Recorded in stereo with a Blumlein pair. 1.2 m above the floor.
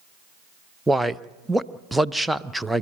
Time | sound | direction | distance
0.9 | a man speaking | 5° right | 0.7 m